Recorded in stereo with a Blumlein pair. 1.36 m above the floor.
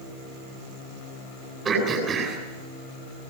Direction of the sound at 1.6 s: 25° right.